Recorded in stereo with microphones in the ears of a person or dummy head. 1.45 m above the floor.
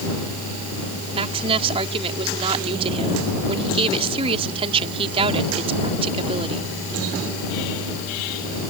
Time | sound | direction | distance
1.1 | a woman speaking | 30° right (ahead or behind) | ?